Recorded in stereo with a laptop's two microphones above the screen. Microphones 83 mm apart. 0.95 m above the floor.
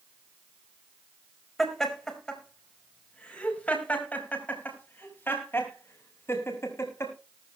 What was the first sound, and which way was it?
Laughter, centre (ahead or behind).